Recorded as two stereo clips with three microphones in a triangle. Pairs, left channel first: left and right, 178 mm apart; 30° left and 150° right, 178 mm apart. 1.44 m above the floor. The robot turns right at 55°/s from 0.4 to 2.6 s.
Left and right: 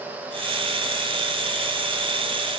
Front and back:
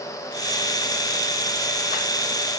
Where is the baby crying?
I don't hear a baby crying.